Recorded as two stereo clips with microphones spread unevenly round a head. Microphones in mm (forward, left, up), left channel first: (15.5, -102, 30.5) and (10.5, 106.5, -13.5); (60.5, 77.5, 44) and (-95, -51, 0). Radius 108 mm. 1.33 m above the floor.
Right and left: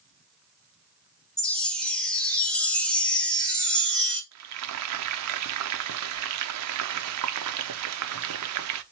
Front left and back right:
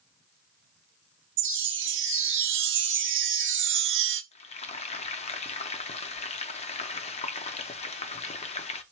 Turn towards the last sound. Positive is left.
turn(degrees=100)